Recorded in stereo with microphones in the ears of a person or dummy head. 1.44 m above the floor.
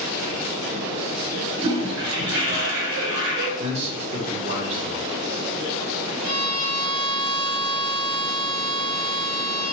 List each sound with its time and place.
1.6 s a toilet flushing: 65° right (ahead or behind), 1.1 m
3.6 s a man speaking: 40° right (ahead or behind), 0.7 m
6.2 s a violin: 50° right (ahead or behind), 1.0 m